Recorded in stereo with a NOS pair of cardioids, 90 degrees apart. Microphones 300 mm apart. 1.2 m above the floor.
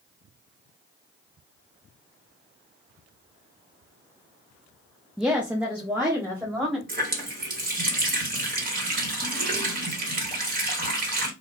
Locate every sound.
5.2 s a woman speaking: straight ahead, 0.5 m; by 6.8 s 10° right, 1.6 m
6.9 s a running tap: 30° right, 1.0 m